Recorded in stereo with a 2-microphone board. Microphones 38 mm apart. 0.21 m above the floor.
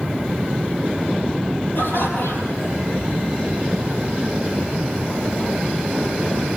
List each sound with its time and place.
1.8 s laughter: 65° left (ahead or behind), 7 m; by 2.8 s 70° left (ahead or behind), 5.5 m